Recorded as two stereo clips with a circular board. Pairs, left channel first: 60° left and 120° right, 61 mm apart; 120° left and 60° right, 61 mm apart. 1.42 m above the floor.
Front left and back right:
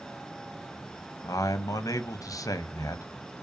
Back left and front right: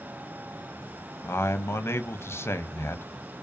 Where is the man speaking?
75° left, 0.6 m.